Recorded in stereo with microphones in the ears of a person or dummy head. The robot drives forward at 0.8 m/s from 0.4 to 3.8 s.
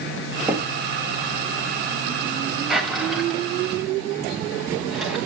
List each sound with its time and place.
0.5 s knocking: 5° right (ahead or behind), 1.5 m
2.7 s a drawer: centre (ahead or behind), 2.5 m